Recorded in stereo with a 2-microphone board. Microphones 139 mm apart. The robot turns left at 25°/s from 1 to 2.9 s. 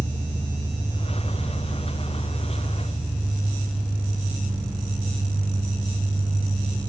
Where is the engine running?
45° left, 4 m; by 6.9 s straight ahead, 4 m.